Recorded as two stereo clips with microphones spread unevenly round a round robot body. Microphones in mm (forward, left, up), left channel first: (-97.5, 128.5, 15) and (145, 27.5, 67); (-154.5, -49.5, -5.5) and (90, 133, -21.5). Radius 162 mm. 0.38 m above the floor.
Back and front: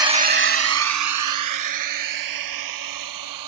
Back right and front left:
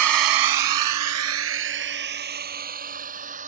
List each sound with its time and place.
0.0 s a drone: 55° left; by 3.5 s 35° right